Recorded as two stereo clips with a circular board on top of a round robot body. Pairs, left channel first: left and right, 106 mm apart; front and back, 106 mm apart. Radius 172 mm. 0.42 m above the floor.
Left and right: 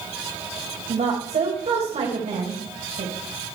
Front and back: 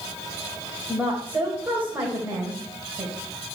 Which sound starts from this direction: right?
A woman speaking, at 0.9 s.